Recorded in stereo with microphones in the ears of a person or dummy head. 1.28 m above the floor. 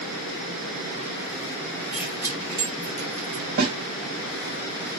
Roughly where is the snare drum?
Right.